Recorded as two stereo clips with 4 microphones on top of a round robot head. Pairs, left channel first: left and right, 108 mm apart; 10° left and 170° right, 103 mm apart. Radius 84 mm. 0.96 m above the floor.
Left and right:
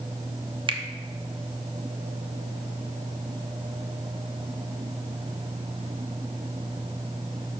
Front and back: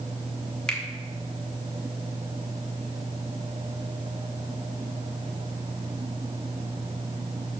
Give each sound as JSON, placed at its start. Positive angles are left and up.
{"t": 0.7, "sound": "a finger snap", "azimuth_deg": -70, "distance_m": 1.0}